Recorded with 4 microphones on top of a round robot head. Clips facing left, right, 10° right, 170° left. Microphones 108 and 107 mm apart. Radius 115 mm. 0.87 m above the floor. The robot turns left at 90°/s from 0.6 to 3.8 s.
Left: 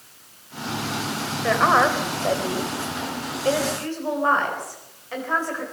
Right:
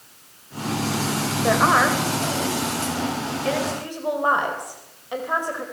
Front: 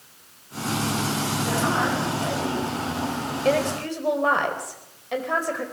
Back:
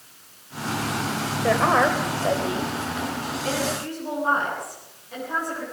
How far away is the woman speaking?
About 4 m.